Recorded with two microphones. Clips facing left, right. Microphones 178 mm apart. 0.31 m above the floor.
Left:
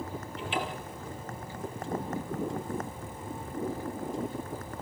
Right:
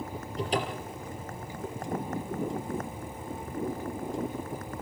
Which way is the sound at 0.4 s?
40° right (ahead or behind).